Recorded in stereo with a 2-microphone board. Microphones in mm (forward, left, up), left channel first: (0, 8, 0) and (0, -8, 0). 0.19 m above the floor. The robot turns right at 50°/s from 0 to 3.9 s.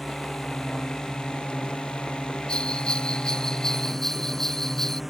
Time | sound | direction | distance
0.0 | a drone | 10° right (ahead or behind) | ?
2.5 | a bell | 85° left | ?